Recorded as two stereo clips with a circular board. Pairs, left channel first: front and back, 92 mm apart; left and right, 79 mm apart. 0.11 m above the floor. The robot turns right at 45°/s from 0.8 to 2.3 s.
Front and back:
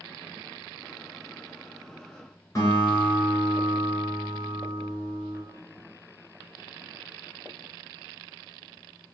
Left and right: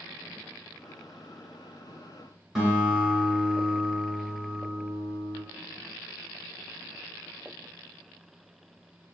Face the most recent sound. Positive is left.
turn(degrees=0)